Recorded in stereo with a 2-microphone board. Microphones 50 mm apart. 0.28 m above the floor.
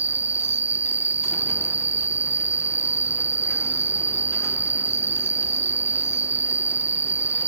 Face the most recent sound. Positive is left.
turn(degrees=-35)  # may be behind; listen again after turning